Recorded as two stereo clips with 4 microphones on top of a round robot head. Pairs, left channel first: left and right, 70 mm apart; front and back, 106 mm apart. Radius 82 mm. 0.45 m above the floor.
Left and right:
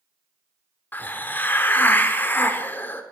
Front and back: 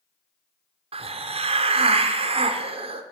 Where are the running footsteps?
No running footsteps in this recording.